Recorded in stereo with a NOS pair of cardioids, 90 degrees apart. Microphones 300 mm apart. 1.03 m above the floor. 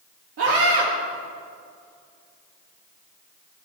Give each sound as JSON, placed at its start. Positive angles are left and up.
{"t": 0.4, "sound": "a scream", "azimuth_deg": -55, "distance_m": 1.6}